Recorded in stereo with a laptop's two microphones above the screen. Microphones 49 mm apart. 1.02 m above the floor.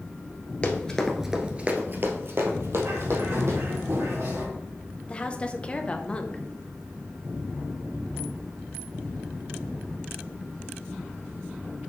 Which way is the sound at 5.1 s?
25° left (ahead or behind).